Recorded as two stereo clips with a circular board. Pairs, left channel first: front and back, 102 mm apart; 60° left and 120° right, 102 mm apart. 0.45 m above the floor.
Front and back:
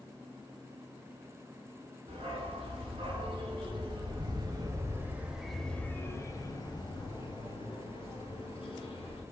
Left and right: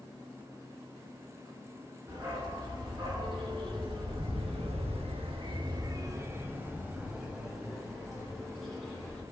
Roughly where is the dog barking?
Behind.